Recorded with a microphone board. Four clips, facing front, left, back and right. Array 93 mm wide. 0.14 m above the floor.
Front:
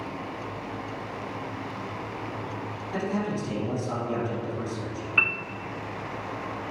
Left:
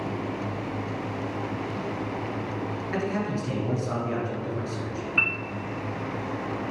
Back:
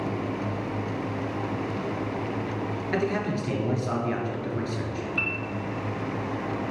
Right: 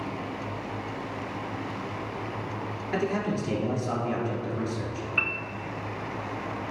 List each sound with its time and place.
2.9 s a man speaking: straight behind, 1.8 m
5.2 s a piano: straight ahead, 0.7 m